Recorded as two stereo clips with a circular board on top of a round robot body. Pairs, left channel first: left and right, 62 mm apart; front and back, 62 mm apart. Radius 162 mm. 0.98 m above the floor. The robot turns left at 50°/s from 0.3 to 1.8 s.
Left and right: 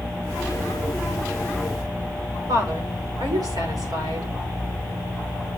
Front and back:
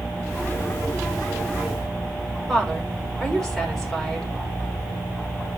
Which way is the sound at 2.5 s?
85° right.